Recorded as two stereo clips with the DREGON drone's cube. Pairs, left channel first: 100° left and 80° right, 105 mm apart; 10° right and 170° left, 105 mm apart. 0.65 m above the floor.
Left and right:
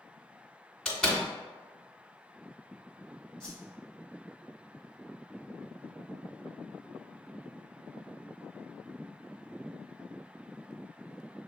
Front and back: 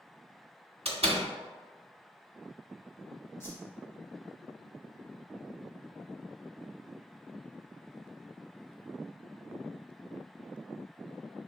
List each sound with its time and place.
0.8 s a door slam: 175° right, 1.1 m
3.4 s a whoosh: 25° left, 1.2 m